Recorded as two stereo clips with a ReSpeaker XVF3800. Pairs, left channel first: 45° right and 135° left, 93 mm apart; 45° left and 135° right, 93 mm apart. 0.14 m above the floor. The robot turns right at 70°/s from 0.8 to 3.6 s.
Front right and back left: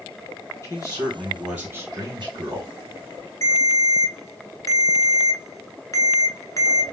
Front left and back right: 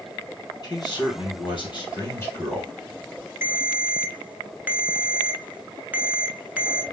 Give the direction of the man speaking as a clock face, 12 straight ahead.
12 o'clock.